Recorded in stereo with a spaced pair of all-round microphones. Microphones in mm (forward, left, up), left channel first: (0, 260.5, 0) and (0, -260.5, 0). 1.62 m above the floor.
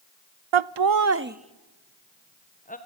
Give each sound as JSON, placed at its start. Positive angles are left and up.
{"t": 0.5, "sound": "laughter", "side_deg": -65, "distance_m": 0.5}